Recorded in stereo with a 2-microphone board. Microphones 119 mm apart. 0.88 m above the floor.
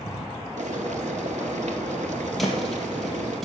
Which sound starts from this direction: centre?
A thud, at 2.4 s.